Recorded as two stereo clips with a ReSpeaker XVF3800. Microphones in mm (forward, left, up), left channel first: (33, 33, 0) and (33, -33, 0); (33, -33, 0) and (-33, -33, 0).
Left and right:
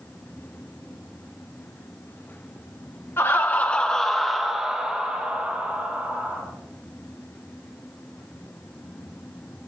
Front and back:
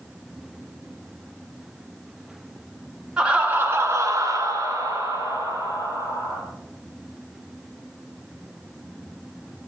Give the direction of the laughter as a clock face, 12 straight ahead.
8 o'clock.